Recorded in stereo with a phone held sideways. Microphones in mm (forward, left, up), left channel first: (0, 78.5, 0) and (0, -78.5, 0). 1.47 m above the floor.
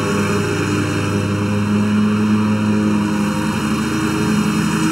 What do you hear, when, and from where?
0.0 s a lawn mower: centre (ahead or behind)